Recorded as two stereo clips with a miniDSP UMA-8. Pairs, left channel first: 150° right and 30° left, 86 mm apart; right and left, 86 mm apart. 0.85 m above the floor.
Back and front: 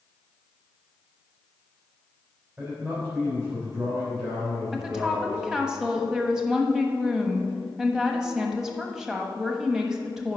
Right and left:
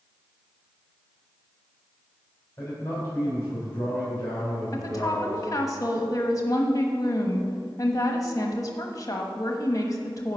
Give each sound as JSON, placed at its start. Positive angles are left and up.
{"t": 2.6, "sound": "a man speaking", "azimuth_deg": -25, "distance_m": 3.5}
{"t": 4.7, "sound": "a woman speaking", "azimuth_deg": -50, "distance_m": 1.2}